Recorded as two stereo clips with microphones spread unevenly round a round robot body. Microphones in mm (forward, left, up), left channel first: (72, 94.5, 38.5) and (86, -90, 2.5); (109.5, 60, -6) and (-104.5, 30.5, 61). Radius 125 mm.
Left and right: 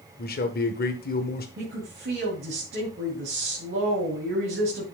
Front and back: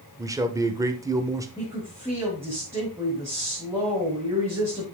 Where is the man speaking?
100° left, 1.3 m.